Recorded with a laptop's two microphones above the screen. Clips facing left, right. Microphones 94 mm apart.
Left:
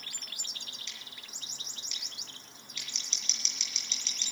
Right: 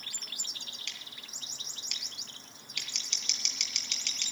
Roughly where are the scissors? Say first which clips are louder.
Right 1 dB; right.